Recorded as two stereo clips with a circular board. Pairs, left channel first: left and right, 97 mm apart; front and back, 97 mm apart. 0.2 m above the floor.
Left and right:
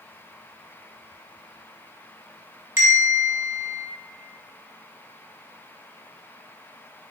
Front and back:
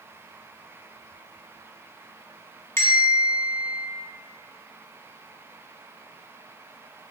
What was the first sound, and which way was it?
A bell, 45° right.